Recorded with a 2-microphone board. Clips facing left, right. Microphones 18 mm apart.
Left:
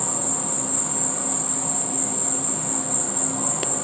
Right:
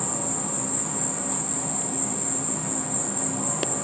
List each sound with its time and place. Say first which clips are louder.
0.0 s an insect: left 1 dB; 35° left (ahead or behind), 0.8 m